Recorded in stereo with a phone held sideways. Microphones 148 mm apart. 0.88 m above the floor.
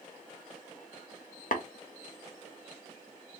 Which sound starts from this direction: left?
Tapping, at 1.5 s.